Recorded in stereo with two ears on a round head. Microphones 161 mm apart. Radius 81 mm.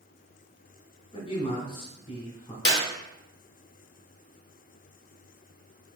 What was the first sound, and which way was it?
A man speaking, 30° left (ahead or behind).